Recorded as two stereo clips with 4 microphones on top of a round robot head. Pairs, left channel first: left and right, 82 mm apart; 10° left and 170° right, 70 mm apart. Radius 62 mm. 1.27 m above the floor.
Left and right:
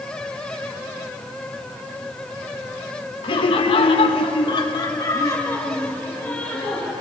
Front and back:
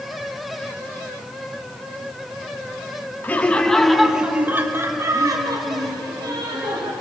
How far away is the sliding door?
I don't hear a sliding door.